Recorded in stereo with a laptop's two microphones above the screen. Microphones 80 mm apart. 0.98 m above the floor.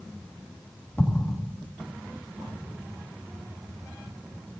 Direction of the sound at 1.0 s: 25° left (ahead or behind).